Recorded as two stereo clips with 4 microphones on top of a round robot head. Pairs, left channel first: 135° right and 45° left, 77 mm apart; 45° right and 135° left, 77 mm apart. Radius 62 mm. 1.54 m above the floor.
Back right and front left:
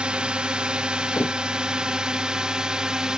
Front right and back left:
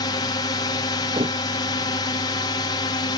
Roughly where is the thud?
Behind left.